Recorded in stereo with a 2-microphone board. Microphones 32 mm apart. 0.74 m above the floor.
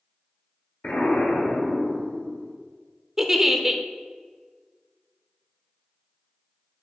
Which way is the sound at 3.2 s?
10° right (ahead or behind).